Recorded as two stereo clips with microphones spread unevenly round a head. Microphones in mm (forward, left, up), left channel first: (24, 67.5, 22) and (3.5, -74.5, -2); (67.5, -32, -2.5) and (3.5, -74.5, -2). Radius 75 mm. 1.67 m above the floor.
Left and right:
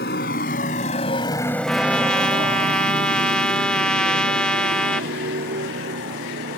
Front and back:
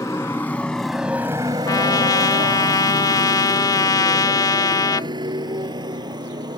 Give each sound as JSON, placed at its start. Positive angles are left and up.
{"t": 0.0, "sound": "a motorcycle", "azimuth_deg": 105}
{"t": 1.7, "sound": "a trumpet", "azimuth_deg": 5}